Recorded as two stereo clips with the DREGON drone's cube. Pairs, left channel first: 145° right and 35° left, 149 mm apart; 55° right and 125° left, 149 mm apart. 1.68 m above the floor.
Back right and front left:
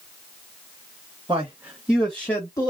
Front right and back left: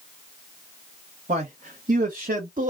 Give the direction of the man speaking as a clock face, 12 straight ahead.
9 o'clock.